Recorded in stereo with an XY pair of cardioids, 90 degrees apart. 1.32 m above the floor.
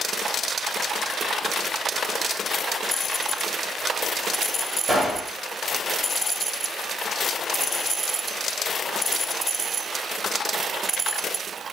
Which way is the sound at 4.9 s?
30° right.